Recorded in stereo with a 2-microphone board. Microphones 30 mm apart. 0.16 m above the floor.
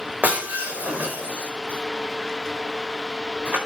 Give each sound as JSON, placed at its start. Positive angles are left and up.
{"t": 0.2, "sound": "breaking glass", "side_deg": -85, "distance_m": 4.5}